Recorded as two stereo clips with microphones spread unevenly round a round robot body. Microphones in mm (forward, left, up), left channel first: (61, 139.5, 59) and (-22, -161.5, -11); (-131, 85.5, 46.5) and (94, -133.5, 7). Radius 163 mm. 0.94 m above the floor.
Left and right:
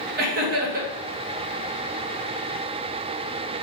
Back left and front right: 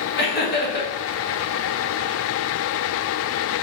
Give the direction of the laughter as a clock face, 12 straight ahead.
5 o'clock.